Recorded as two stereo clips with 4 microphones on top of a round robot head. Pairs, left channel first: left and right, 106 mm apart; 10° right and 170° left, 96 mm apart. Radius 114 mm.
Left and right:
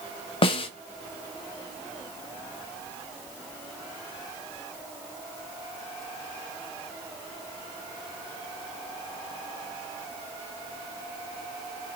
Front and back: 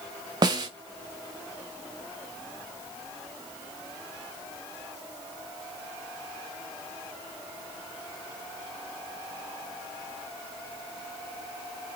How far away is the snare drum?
About 0.5 m.